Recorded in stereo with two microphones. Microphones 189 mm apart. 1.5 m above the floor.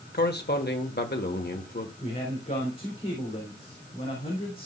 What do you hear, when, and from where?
0.1 s a man speaking: 60° left (ahead or behind), 1.5 m
2.0 s a man speaking: 50° left (ahead or behind), 4 m